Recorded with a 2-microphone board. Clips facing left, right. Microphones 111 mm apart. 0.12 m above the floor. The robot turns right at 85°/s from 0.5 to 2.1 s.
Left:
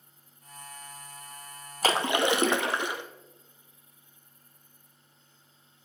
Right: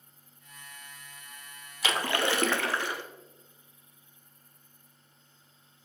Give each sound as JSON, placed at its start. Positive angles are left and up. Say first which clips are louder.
{"t": 1.8, "sound": "a splash", "louder": "left 4 dB", "side_deg": 40, "distance_m": 0.7}